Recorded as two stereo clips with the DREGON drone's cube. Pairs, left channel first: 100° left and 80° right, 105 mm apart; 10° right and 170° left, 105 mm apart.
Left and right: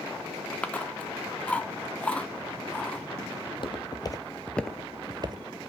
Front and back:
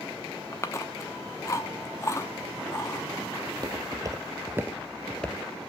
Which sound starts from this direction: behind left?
Footsteps, at 3.5 s.